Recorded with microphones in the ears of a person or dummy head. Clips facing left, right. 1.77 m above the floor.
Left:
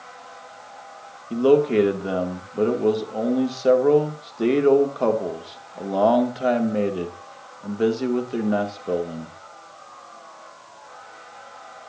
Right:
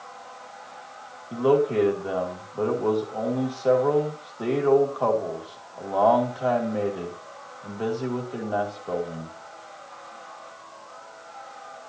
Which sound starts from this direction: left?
A man speaking, at 1.3 s.